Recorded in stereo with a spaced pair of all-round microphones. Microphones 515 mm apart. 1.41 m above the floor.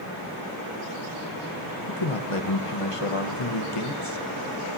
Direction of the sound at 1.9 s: 85° left.